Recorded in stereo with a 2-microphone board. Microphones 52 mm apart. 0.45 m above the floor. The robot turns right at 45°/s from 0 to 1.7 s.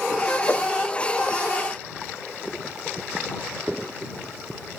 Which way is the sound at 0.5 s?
45° left (ahead or behind).